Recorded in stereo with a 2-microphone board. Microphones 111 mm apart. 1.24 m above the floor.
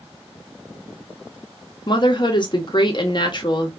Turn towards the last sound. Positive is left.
turn(degrees=40)  # may be behind; listen again after turning